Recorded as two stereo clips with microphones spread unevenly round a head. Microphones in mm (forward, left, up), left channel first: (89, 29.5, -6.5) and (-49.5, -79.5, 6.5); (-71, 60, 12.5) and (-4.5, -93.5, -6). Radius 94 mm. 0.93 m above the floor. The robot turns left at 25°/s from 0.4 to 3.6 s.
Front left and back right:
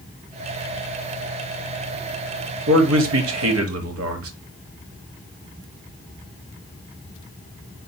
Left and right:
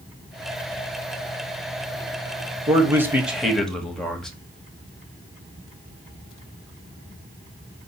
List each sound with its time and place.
2.7 s a man speaking: 135° right, 1.2 m; by 4.3 s 160° right, 1.2 m